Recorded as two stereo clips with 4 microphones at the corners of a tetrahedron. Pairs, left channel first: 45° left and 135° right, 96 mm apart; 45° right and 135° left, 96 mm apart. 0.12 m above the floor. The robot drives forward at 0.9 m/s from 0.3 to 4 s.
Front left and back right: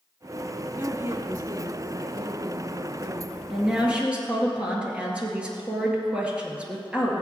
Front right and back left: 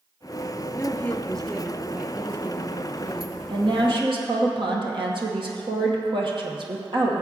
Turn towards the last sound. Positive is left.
turn(degrees=150)